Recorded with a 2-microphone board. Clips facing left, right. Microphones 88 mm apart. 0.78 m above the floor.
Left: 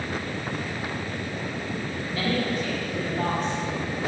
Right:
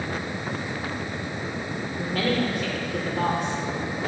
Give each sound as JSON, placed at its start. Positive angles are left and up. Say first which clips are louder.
{"t": 2.0, "sound": "a woman speaking", "louder": "right 3 dB", "side_deg": -60, "distance_m": 2.5}